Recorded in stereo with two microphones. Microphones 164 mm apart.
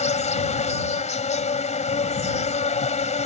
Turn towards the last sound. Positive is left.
turn(degrees=45)  # may be behind; listen again after turning